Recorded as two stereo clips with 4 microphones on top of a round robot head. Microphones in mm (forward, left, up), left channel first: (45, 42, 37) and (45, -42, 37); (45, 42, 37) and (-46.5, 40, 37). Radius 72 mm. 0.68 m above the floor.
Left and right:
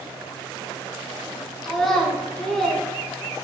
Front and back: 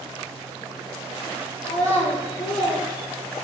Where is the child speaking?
5° left, 1.7 m.